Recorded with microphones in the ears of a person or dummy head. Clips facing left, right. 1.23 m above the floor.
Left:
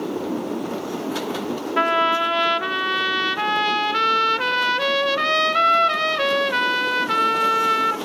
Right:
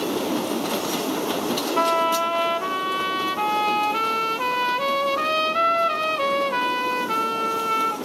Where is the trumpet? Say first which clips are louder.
Left 2 dB; 15° left (ahead or behind), 1.1 m.